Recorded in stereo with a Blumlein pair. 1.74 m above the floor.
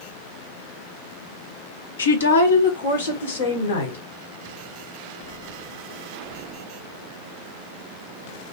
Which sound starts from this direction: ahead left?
A woman speaking, at 2.0 s.